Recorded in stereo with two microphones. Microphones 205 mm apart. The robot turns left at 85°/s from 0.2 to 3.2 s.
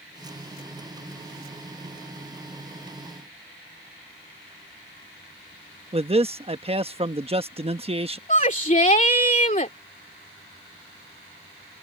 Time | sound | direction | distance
5.9 | a man speaking | 30° right (ahead or behind) | ?
8.3 | a shout | 35° left (ahead or behind) | ?